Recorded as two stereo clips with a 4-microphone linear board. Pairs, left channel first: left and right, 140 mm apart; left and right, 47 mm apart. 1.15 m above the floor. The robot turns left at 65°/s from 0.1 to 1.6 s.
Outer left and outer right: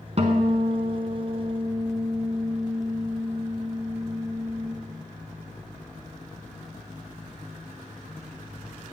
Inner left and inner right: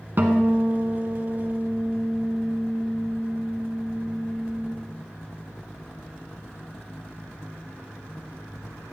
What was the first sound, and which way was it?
A guitar, 60° right.